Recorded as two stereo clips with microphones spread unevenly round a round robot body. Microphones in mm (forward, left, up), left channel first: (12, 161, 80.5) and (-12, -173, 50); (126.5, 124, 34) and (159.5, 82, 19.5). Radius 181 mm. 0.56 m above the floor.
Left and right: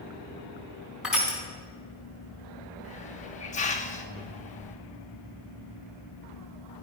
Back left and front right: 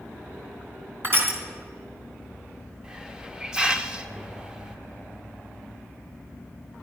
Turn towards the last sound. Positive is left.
turn(degrees=15)